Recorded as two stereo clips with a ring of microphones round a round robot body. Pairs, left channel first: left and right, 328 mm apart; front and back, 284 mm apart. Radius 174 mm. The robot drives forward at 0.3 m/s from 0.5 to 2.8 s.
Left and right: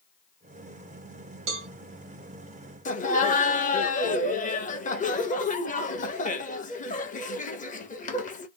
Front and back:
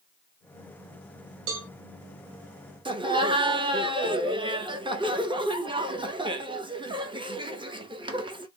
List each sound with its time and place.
1.5 s a cowbell: 130° right, 1.0 m; by 1.7 s 135° right, 1.0 m
2.9 s laughter: 125° left, 1.0 m